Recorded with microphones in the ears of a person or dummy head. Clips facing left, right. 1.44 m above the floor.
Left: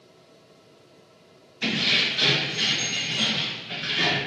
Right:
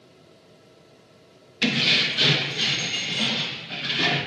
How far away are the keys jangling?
About 0.6 m.